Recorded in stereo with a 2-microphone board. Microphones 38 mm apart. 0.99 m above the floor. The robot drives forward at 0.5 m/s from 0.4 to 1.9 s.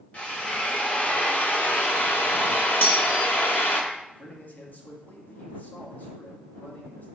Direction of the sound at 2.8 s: 55° left (ahead or behind).